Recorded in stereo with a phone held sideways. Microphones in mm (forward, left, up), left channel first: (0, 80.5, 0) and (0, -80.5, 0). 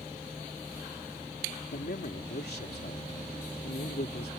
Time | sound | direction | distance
1.7 | a man speaking | 85° left | ?